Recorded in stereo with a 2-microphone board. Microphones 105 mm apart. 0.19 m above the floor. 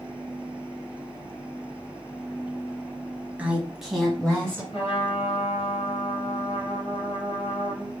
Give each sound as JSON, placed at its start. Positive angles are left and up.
{"t": 3.4, "sound": "a woman speaking", "side_deg": -15, "distance_m": 1.2}
{"t": 4.7, "sound": "a trumpet", "side_deg": 60, "distance_m": 2.0}